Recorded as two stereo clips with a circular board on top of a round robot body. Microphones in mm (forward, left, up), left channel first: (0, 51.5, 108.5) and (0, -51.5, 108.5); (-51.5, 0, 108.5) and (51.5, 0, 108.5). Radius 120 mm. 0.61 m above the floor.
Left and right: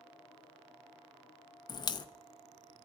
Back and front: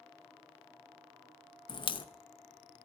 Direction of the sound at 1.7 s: 135° left.